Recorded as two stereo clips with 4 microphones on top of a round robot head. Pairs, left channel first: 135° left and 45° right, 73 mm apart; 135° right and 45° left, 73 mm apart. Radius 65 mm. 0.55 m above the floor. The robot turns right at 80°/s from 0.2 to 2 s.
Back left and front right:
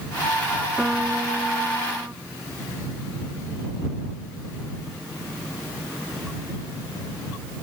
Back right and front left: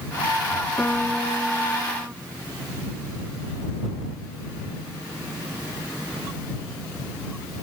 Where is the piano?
105° right; by 2.1 s 5° right.